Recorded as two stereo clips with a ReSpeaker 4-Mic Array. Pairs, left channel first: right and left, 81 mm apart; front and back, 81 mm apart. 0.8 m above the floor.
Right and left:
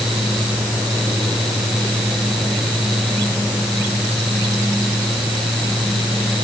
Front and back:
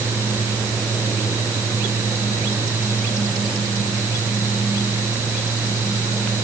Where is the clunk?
No clunk in this recording.